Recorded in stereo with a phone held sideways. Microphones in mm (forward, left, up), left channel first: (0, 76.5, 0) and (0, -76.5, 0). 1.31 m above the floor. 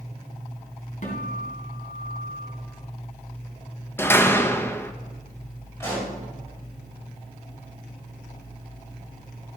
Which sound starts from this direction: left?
A guitar, at 1.0 s.